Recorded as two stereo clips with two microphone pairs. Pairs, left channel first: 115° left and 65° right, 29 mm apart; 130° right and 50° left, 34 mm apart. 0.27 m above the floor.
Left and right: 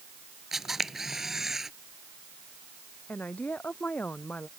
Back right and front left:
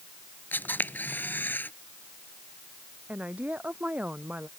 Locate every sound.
0.5 s a camera shutter: 140° right
3.1 s a woman speaking: 95° left